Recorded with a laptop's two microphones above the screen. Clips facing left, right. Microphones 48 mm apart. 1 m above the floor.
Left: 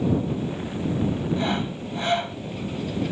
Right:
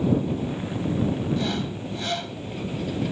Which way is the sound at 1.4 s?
30° left (ahead or behind).